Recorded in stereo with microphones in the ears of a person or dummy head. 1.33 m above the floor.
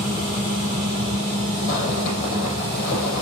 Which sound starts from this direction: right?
A fan, at 0.0 s.